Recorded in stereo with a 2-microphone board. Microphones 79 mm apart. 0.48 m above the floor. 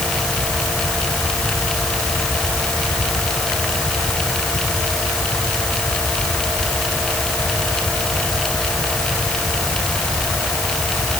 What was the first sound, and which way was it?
Only background noise.